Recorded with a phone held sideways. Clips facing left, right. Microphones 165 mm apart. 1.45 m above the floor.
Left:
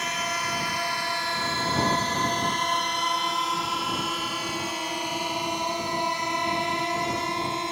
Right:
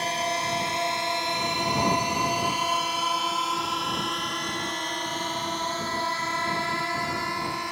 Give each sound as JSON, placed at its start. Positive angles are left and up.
{"t": 0.0, "sound": "a drone", "side_deg": -30}